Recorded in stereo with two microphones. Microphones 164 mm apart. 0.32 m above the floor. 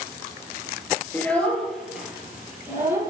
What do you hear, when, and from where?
1.1 s a child speaking: 10° left (ahead or behind), 3.5 m; by 3.1 s 15° right (ahead or behind), 5 m